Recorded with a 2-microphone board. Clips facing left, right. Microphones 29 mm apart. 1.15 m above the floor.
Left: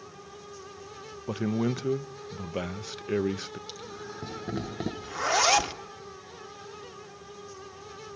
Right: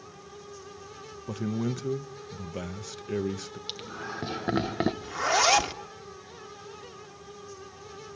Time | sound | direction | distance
1.3 | a man speaking | 25° left (ahead or behind) | 0.6 m
3.7 | laughter | 40° right (ahead or behind) | 1.2 m
5.0 | a zipper | centre (ahead or behind) | 1.0 m